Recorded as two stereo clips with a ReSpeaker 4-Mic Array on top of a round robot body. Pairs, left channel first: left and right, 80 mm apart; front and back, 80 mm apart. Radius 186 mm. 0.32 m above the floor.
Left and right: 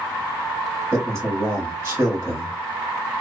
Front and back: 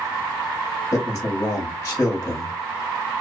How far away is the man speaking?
About 1.4 m.